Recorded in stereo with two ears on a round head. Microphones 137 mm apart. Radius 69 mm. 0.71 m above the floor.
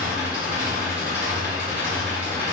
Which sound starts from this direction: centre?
An engine running, at 0.0 s.